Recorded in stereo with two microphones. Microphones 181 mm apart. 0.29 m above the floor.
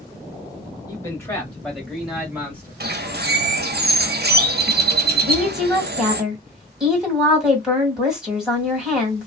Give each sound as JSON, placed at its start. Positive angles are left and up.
{"t": 0.9, "sound": "a man speaking", "side_deg": 20, "distance_m": 1.7}
{"t": 2.8, "sound": "a bird", "side_deg": -65, "distance_m": 0.6}
{"t": 5.2, "sound": "a woman speaking", "side_deg": -5, "distance_m": 1.9}